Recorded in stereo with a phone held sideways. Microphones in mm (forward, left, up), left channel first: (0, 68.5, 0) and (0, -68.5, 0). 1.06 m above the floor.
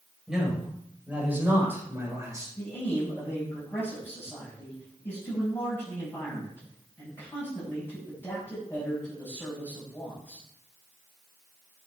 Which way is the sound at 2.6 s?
15° left (ahead or behind).